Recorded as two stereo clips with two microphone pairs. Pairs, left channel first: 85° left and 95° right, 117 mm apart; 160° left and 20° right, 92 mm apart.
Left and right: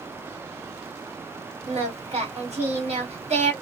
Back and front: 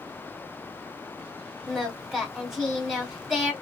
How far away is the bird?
I don't hear a bird.